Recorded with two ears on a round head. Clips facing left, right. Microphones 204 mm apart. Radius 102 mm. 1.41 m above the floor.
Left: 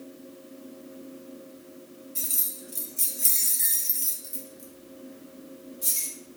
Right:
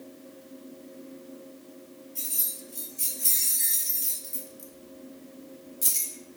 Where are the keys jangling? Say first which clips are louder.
Left 2 dB; 30° left (ahead or behind), 1.6 m; by 6.4 s 30° right (ahead or behind), 1.3 m.